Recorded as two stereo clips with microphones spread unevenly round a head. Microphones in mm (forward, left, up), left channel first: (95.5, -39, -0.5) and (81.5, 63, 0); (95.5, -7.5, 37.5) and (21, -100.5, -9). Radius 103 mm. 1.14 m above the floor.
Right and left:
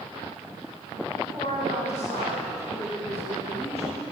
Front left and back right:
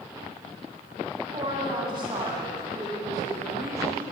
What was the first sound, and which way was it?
A woman speaking, 160° left.